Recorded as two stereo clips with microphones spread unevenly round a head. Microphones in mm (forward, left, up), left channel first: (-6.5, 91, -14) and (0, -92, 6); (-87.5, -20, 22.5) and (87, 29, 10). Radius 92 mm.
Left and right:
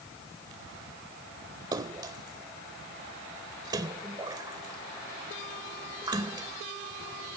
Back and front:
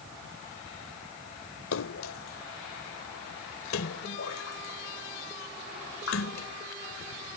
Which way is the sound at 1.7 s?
155° right.